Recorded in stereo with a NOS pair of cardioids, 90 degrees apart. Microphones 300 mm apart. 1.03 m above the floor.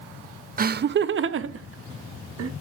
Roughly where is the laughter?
Ahead right.